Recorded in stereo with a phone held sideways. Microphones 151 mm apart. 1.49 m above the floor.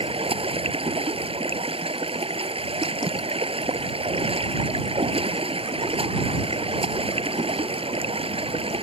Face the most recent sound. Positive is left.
turn(degrees=-40)  # may be behind; listen again after turning